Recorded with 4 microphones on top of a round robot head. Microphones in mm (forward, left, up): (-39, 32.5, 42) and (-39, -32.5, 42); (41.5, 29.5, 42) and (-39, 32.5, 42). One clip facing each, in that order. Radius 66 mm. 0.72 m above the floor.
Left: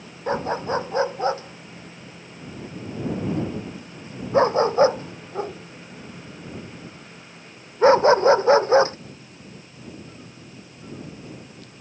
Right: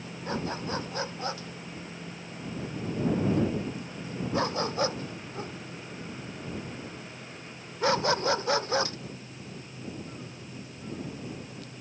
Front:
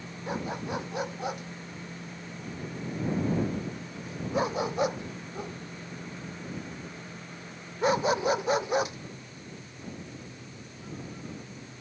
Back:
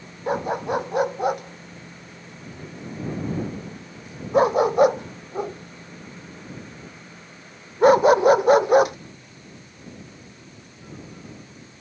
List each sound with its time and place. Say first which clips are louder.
0.3 s a dog barking: left 9 dB, back 9 dB; 145° left